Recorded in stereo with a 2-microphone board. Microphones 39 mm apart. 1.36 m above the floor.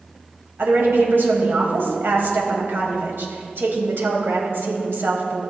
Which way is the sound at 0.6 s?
75° right (ahead or behind).